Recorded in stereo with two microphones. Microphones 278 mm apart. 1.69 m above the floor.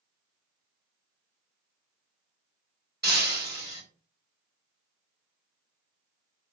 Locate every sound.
3.0 s breaking glass: 35° right (ahead or behind), 1.6 m